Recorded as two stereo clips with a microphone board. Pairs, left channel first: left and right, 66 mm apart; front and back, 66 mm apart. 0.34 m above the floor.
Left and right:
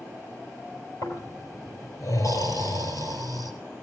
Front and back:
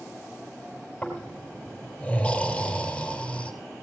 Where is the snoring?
75° left, 5.5 m.